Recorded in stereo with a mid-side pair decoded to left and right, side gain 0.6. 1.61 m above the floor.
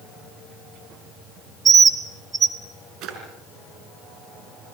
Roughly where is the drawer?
Ahead right.